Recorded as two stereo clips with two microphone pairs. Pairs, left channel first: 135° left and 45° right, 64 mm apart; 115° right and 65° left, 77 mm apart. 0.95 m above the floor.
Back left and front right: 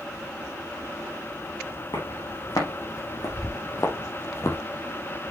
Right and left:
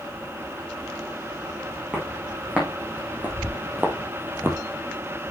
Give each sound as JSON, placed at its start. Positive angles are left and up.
{"t": 1.9, "sound": "footsteps", "azimuth_deg": 140, "distance_m": 4.0}